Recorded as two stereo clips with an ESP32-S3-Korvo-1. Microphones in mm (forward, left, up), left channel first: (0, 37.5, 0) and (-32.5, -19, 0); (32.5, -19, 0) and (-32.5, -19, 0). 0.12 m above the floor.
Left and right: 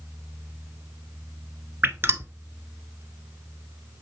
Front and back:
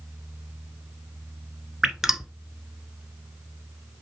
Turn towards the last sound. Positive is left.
turn(degrees=-100)